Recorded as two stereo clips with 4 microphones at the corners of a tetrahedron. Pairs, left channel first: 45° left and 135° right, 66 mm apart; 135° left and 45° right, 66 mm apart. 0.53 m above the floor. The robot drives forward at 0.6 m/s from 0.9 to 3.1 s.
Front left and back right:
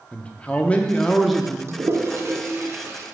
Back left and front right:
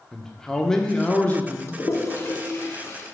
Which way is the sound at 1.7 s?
Straight behind.